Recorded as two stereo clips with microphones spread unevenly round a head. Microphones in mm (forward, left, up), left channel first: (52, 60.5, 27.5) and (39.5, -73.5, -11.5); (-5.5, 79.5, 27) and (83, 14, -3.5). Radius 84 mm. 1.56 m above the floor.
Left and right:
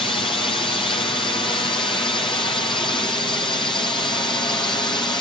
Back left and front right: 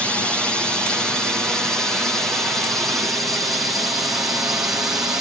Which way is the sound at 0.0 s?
45° left.